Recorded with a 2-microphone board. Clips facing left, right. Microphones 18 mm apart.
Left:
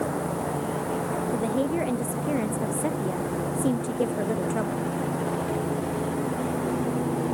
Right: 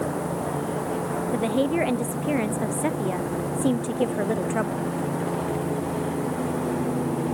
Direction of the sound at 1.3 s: 40° right (ahead or behind).